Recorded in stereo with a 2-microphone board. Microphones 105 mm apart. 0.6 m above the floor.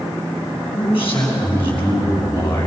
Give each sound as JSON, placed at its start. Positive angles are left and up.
{"t": 0.7, "sound": "a man speaking", "side_deg": 55, "distance_m": 5.5}